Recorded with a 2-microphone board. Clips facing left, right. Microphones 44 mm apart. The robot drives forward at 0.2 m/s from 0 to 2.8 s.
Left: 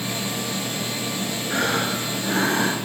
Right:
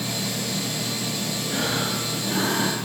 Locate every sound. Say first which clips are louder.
1.5 s breathing: left 4 dB; 45° left (ahead or behind), 6 m; by 2.8 s 40° left (ahead or behind), 6 m